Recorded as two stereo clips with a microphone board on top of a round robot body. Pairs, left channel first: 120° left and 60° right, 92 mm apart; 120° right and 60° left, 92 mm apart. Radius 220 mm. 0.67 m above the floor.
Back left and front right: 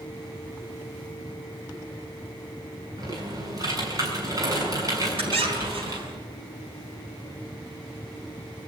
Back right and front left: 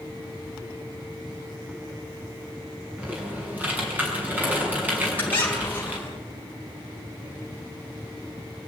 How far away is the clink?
I don't hear a clink.